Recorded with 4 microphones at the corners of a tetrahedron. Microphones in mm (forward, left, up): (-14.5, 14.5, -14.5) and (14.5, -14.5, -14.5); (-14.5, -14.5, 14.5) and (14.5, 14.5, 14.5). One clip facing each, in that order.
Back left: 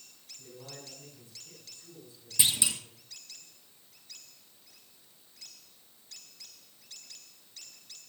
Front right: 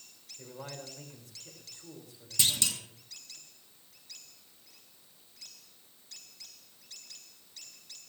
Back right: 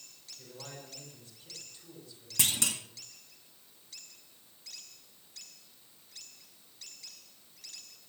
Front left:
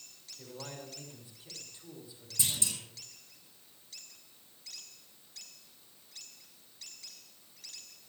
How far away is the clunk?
About 1.7 m.